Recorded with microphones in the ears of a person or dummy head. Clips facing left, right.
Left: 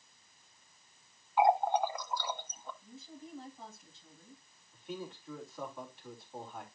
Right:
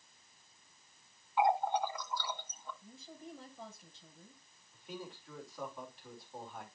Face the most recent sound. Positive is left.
turn(degrees=0)  # may be behind; listen again after turning